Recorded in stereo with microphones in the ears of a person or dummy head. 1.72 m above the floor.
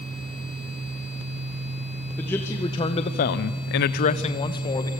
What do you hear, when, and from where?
2.2 s a man speaking: 15° left (ahead or behind), 2.5 m; by 4.9 s 25° left (ahead or behind), 2.5 m